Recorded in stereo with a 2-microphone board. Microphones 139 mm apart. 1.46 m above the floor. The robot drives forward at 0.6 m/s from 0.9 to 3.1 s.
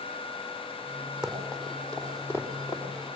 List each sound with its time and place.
1.2 s running footsteps: 5° right (ahead or behind), 4 m; by 2.8 s 30° left (ahead or behind), 3 m